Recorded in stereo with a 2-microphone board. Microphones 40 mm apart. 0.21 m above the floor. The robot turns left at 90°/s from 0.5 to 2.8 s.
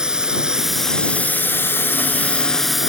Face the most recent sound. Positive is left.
turn(degrees=-10)